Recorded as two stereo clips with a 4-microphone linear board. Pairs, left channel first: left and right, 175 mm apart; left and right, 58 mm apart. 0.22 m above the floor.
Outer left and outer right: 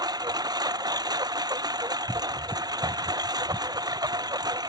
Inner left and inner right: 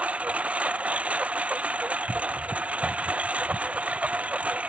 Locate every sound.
0.0 s a lawn mower: 25° right (ahead or behind)